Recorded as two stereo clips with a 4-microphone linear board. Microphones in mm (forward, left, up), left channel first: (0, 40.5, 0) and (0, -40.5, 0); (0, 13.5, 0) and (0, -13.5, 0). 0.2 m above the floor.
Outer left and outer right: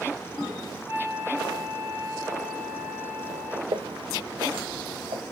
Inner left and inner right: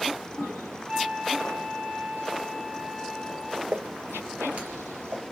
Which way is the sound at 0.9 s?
30° right (ahead or behind).